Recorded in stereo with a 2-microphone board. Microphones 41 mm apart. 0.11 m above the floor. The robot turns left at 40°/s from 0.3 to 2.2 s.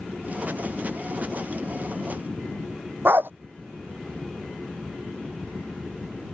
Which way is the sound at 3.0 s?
50° right (ahead or behind).